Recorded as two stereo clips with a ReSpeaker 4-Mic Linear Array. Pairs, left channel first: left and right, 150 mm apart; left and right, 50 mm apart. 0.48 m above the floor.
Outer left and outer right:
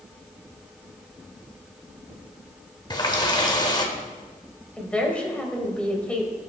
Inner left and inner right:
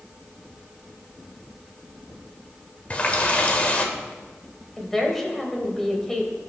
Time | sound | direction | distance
2.9 | a running tap | 30° left (ahead or behind) | 1.2 m
4.8 | a woman speaking | 10° left (ahead or behind) | 2 m